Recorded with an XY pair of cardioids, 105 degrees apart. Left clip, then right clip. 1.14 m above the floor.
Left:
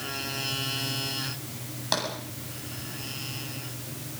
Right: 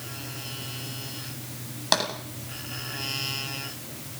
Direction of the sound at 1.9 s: 35° right.